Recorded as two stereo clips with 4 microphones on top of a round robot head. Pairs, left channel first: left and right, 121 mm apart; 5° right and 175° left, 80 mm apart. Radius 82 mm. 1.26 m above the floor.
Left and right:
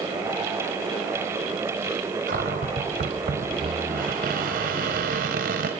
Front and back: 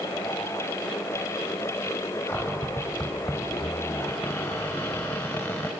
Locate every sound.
2.3 s a cupboard door: 75° right, 3 m